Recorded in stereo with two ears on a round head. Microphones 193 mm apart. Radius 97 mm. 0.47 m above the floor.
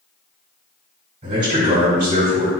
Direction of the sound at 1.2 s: 35° right (ahead or behind).